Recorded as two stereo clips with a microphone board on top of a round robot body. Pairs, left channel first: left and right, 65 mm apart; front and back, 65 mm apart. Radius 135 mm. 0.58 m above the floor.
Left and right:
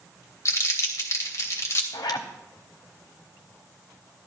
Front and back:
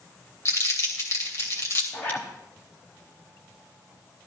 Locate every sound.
0.5 s crumpling: 45° left, 2.5 m
1.9 s a zipper: 70° left, 0.7 m